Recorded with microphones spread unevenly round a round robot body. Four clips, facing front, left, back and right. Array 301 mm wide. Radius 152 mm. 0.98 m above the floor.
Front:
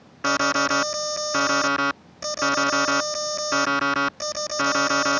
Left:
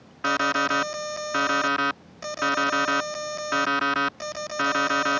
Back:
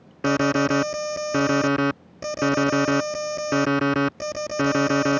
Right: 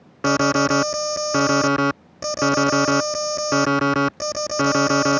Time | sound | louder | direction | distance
0.2 | an alarm | right 6 dB, back 2 dB | 130° right | ?